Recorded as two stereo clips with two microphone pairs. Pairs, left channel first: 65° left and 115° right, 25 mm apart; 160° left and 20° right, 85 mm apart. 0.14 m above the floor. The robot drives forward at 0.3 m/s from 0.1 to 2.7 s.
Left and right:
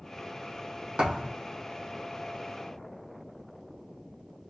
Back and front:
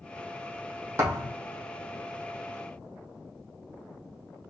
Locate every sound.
1.0 s a thud: 75° right, 2.5 m; by 1.4 s 80° right, 2.5 m